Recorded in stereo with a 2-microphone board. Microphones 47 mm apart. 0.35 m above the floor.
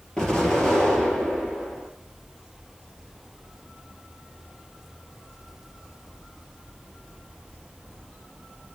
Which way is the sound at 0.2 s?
15° left (ahead or behind).